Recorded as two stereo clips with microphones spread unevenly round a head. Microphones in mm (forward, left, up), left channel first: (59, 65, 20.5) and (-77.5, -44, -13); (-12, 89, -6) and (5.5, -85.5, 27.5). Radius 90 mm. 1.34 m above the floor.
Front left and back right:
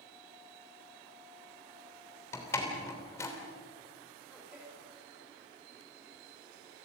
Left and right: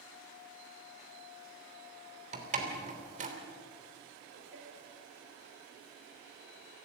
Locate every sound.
2.3 s a door slam: 35° right, 3 m
4.3 s a man speaking: 55° right, 5.5 m